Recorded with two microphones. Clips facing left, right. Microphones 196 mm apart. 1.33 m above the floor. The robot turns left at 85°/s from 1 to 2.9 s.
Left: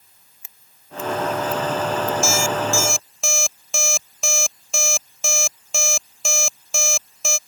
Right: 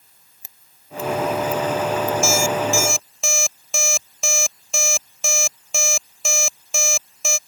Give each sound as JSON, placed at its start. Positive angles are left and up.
{"t": 0.4, "sound": "scissors", "side_deg": -40}
{"t": 2.2, "sound": "an alarm clock", "side_deg": -60}